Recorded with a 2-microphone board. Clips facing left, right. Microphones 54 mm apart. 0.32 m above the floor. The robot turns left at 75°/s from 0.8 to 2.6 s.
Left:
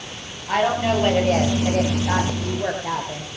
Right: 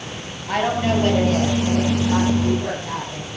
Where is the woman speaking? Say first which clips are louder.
Left 1 dB; straight behind, 8.5 m; by 3.3 s 45° left, 8.5 m.